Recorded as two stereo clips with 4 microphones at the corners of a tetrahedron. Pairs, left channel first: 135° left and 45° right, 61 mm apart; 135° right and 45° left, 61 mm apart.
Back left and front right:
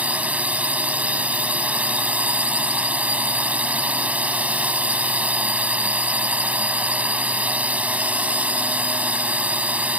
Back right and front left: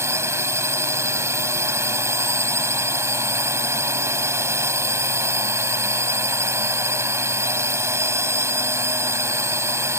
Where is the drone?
15° left.